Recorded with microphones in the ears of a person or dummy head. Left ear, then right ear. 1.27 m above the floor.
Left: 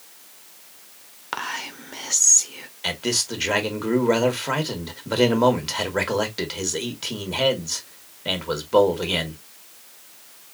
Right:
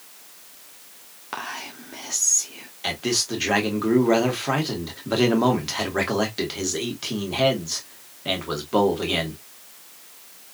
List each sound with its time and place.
1.3 s whispering: 20° left (ahead or behind), 0.7 m
2.8 s a man speaking: 5° left (ahead or behind), 1.3 m